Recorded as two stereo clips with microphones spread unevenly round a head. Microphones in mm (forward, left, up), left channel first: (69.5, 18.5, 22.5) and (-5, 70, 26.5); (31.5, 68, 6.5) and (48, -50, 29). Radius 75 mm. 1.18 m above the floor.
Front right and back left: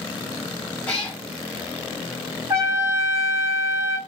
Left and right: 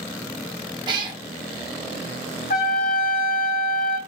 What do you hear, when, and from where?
0.9 s a cat meowing: 115° right, 0.5 m
2.5 s a trumpet: 90° left, 1.1 m